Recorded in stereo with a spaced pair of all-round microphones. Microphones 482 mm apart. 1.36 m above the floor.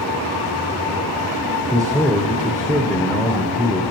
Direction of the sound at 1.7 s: Centre (ahead or behind).